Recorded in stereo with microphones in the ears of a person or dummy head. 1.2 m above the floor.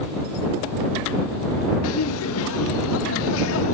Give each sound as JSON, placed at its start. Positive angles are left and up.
{"t": 1.8, "sound": "laughter", "side_deg": 70}